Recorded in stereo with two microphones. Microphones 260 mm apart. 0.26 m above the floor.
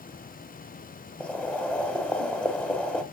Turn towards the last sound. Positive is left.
turn(degrees=5)  # may be behind; listen again after turning